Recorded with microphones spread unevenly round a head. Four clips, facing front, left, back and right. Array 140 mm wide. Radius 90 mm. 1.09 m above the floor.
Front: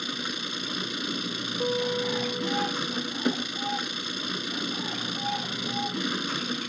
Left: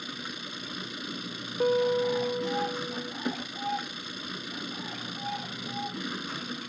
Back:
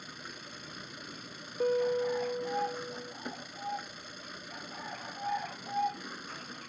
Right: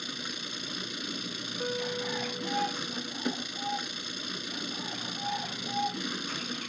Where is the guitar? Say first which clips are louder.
Left 10 dB, even; 115° left.